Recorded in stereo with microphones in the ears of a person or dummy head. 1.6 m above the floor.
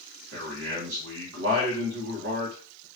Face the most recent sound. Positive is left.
turn(degrees=-70)  # may be behind; listen again after turning